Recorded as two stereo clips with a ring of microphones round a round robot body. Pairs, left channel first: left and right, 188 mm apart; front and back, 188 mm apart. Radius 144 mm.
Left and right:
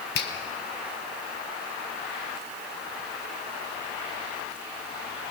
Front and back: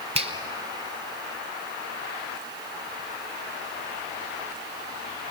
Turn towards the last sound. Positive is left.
turn(degrees=125)